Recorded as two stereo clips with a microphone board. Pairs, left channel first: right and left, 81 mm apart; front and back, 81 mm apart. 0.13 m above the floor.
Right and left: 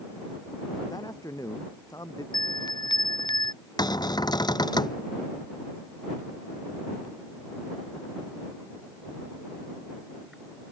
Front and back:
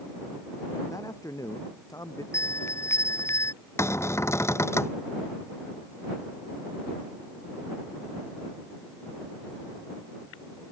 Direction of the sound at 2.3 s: 60° right.